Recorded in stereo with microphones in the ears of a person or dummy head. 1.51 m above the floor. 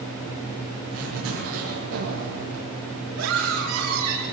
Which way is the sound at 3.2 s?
90° right.